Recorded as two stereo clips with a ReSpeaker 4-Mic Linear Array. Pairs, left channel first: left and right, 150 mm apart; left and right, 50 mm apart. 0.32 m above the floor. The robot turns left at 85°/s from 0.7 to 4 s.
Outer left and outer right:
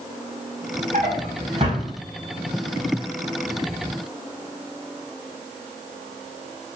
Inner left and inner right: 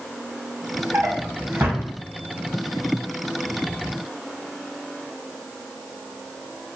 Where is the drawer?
60° right (ahead or behind), 0.8 m; by 1.9 s 25° right (ahead or behind), 0.8 m.